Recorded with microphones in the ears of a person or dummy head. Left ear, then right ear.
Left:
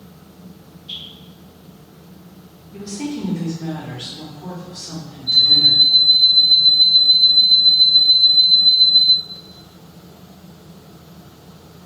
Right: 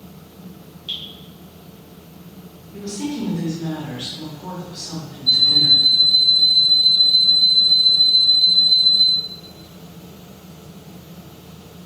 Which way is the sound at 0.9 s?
80° right.